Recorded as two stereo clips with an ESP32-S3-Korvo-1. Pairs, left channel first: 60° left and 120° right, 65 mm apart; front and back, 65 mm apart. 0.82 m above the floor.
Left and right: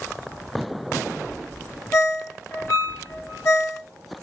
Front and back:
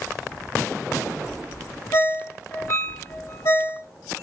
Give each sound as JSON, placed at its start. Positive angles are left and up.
{"t": 1.9, "sound": "a ringtone", "azimuth_deg": 5, "distance_m": 2.0}